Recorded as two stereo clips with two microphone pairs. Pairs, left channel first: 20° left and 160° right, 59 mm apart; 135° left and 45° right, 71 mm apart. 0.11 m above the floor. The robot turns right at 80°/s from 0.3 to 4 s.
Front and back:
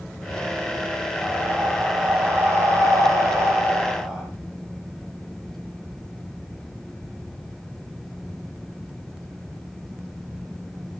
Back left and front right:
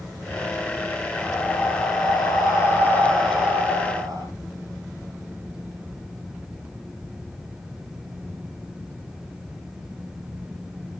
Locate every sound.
1.2 s breathing: 60° left, 4.5 m; by 4.3 s 75° right, 4.5 m